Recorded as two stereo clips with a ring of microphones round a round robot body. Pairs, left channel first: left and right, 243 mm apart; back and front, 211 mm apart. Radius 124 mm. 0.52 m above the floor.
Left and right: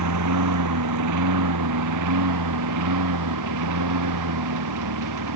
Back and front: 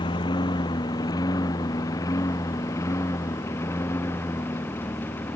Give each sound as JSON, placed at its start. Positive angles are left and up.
{"t": 0.0, "sound": "a lawn mower", "azimuth_deg": -105}